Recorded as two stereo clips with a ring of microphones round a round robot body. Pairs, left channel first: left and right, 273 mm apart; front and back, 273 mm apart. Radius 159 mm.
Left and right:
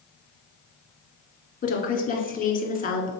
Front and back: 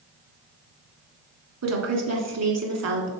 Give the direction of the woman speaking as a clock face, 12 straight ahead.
7 o'clock.